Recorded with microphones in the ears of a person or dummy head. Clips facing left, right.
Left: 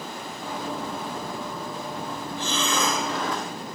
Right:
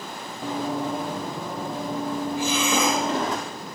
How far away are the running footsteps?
About 2.5 m.